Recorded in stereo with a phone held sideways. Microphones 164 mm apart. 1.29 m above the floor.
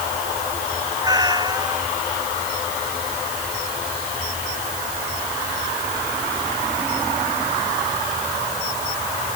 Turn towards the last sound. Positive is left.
turn(degrees=-25)  # may be behind; listen again after turning